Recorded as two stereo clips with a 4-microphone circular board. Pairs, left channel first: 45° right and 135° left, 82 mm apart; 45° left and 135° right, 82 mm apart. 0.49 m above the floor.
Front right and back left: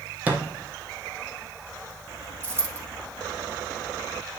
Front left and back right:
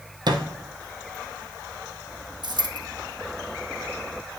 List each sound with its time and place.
0.3 s a thud: 155° right, 1.3 m
2.4 s a dropped coin: 165° right, 3 m